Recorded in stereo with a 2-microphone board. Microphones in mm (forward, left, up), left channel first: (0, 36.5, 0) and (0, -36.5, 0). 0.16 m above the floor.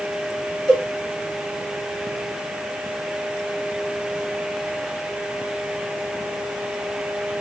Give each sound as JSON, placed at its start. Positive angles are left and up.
{"t": 0.7, "sound": "a cowbell", "side_deg": 5, "distance_m": 1.7}